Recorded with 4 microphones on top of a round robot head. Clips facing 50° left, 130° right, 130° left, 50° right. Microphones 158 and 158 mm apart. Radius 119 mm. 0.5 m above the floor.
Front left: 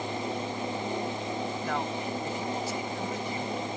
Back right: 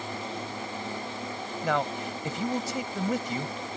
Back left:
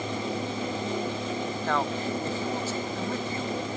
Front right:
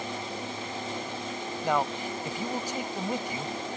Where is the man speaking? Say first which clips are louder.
Back right 3 dB, front right 2 dB; 130° right.